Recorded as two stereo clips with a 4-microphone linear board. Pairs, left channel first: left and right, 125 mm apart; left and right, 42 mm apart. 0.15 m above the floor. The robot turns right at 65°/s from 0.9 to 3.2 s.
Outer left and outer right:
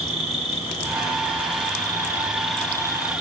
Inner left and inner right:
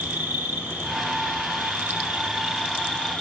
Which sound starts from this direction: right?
An insect, at 0.0 s.